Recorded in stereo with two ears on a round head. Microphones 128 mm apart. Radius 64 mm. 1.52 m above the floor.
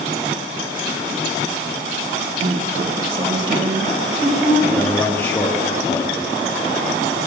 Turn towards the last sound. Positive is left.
turn(degrees=15)  # may be behind; listen again after turning